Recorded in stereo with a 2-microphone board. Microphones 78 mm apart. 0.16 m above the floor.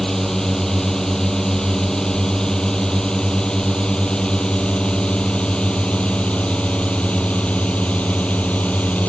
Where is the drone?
5° left (ahead or behind); by 9.1 s 20° left (ahead or behind).